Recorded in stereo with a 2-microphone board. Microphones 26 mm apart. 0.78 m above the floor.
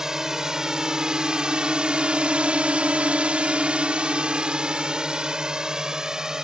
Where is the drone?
25° right (ahead or behind); by 6.4 s 30° right (ahead or behind).